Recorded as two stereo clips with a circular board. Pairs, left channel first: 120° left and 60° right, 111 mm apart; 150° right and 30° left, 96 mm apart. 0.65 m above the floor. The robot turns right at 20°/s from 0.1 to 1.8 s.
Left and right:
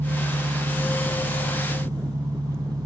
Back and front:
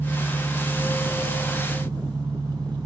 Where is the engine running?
40° right, 1.7 m; by 2.9 s 5° right, 1.7 m.